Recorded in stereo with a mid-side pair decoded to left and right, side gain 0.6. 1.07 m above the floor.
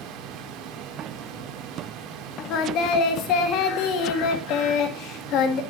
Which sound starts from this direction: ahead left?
Singing, at 2.5 s.